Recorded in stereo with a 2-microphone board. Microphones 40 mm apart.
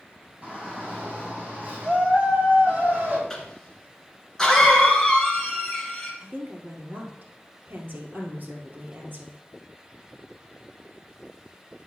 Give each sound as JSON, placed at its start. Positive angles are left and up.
{"t": 0.4, "sound": "a shout", "side_deg": -40, "distance_m": 5.0}
{"t": 3.3, "sound": "a cough", "side_deg": 10, "distance_m": 1.4}
{"t": 6.2, "sound": "a woman speaking", "side_deg": -55, "distance_m": 2.0}